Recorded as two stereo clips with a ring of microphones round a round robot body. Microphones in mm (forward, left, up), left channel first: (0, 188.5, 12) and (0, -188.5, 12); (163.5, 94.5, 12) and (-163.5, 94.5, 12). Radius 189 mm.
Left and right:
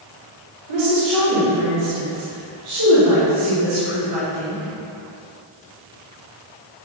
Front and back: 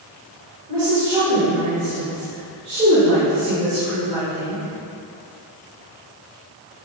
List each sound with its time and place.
0.7 s a woman speaking: 125° right, 3 m; by 4.6 s 145° right, 7 m